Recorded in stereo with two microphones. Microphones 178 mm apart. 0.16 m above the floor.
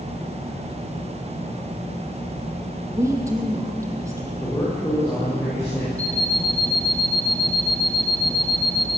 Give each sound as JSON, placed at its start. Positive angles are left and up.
{"t": 2.9, "sound": "a woman speaking", "side_deg": -20, "distance_m": 5.5}
{"t": 4.4, "sound": "a man speaking", "side_deg": 20, "distance_m": 9.0}
{"t": 6.0, "sound": "an alarm clock", "side_deg": 5, "distance_m": 1.2}